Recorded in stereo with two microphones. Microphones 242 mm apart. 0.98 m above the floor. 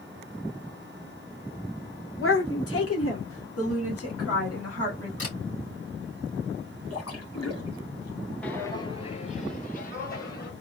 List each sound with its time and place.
2.2 s a woman speaking: 55° left (ahead or behind), 0.7 m; by 5.1 s 75° left (ahead or behind), 3 m
5.2 s a camera shutter: 70° left (ahead or behind), 3 m
6.9 s a splash: 85° left, 2.0 m
8.4 s footsteps: 5° left (ahead or behind), 1.0 m; by 10.5 s 40° left (ahead or behind), 2 m